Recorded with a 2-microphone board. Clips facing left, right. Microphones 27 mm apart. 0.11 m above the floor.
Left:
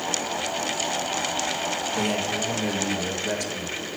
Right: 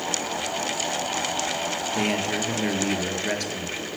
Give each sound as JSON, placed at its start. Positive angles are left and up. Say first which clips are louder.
{"t": 1.9, "sound": "a man speaking", "louder": "right 2 dB", "side_deg": -40, "distance_m": 1.6}